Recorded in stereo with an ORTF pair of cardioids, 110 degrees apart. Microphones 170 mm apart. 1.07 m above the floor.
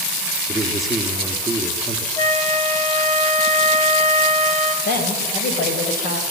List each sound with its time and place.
0.5 s a man speaking: straight ahead, 2.5 m
2.2 s a flute: 25° left, 3 m
4.8 s a woman speaking: 60° left, 5 m